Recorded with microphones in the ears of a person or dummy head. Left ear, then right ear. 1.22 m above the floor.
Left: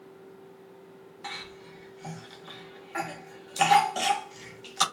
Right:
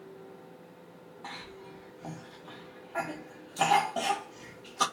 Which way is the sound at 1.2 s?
50° left (ahead or behind).